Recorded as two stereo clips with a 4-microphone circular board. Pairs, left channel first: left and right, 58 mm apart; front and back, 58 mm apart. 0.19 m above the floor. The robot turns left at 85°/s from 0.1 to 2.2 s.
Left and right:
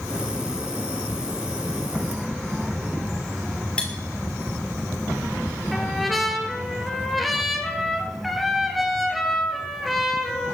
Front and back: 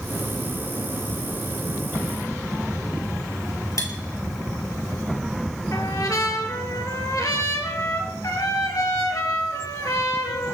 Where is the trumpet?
Straight ahead, 2.5 m.